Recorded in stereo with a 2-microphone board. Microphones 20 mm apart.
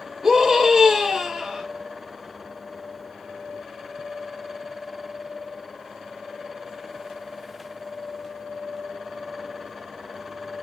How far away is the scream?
About 9 m.